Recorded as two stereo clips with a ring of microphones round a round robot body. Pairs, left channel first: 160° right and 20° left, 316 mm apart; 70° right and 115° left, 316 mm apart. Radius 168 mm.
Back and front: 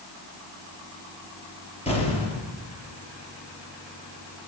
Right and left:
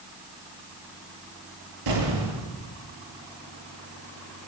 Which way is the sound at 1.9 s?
130° left.